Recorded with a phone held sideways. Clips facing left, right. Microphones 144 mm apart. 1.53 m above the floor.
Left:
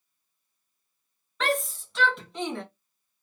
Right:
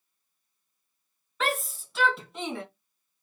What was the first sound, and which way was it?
A shout, 5° right (ahead or behind).